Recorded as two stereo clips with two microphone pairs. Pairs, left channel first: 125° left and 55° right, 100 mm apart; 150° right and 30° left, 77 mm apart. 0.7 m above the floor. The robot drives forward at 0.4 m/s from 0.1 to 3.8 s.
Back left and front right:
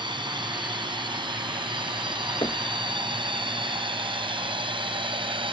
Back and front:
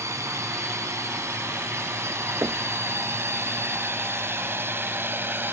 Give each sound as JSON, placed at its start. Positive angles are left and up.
{"t": 0.0, "sound": "a drone", "azimuth_deg": -20}
{"t": 2.4, "sound": "knocking", "azimuth_deg": 85}